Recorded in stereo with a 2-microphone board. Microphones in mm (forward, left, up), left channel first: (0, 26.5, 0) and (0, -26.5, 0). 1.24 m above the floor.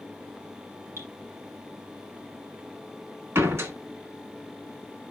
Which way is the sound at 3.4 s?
60° right (ahead or behind).